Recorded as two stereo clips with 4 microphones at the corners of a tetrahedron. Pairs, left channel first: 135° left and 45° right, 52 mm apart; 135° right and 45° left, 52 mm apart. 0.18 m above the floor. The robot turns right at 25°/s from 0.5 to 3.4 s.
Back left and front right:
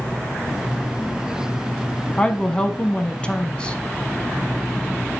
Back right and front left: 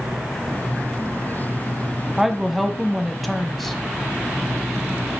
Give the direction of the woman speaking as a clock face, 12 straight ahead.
8 o'clock.